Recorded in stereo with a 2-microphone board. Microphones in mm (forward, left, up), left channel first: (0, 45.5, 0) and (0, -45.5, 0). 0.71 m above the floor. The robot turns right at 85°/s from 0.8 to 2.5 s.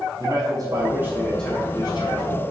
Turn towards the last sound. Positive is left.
turn(degrees=90)